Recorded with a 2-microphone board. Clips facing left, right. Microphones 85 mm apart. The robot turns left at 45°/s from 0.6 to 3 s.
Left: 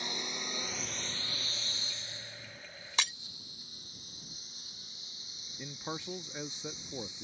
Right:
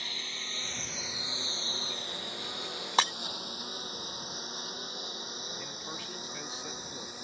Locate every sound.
0.0 s a lawn mower: 20° left (ahead or behind); by 7.2 s 60° right (ahead or behind)
3.0 s breaking glass: 50° right (ahead or behind); by 3.1 s 45° right (ahead or behind)
5.6 s a man speaking: 20° left (ahead or behind)